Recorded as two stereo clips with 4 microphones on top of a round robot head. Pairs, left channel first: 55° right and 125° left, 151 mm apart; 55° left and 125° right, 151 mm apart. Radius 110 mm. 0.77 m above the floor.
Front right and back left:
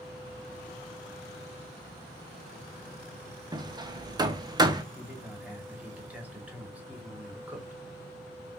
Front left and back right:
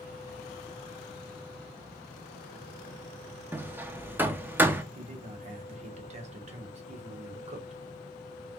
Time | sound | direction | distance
3.5 | hammering | 165° left | 0.7 m
5.0 | a man speaking | 155° right | 1.3 m